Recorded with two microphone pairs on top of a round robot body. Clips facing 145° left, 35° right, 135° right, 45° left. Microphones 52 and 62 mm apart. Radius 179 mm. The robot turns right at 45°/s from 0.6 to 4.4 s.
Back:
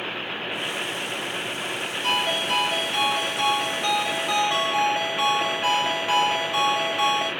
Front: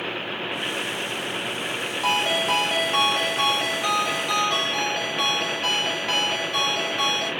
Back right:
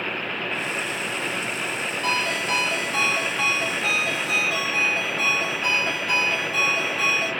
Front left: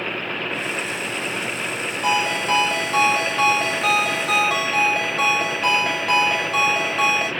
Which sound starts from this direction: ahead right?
A ringtone, at 2.0 s.